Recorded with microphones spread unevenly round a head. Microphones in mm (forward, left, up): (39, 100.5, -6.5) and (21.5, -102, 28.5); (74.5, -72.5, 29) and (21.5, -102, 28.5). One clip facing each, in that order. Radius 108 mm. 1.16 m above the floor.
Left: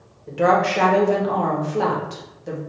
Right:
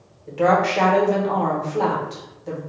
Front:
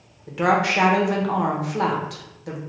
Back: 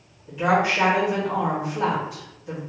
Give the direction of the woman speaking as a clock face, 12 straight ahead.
12 o'clock.